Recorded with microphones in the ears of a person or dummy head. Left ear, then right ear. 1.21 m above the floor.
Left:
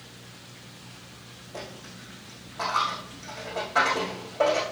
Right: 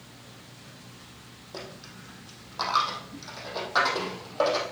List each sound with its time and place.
1.5 s a dropped coin: 60° right (ahead or behind), 3.5 m